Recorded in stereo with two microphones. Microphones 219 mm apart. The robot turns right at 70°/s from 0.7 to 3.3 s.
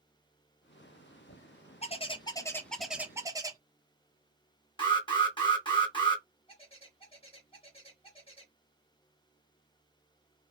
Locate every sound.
1.8 s a bird: 110° left, 0.5 m; by 3.6 s 145° right, 0.5 m
4.8 s an alarm: 20° left (ahead or behind), 1.0 m
6.5 s a bird: 25° left (ahead or behind), 1.1 m